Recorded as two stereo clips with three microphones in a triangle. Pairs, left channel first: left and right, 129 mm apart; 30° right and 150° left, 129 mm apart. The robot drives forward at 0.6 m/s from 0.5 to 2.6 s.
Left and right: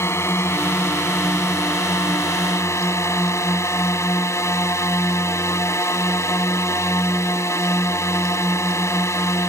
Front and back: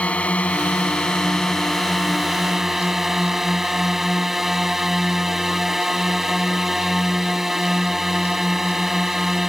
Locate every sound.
0.0 s a drone: 40° left; by 9.5 s 65° left